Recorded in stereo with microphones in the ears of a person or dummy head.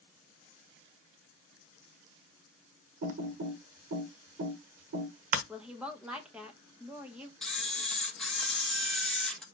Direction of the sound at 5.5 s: 5° right (ahead or behind).